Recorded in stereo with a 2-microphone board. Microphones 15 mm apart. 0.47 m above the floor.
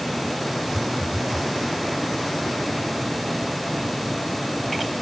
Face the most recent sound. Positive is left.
turn(degrees=-85)